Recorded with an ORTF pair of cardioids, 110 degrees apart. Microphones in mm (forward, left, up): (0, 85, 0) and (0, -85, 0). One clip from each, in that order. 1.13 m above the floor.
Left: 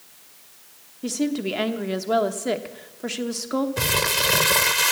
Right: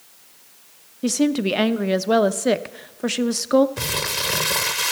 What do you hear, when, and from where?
1.0 s a woman speaking: 30° right, 0.8 m
3.8 s crumpling: 10° left, 0.8 m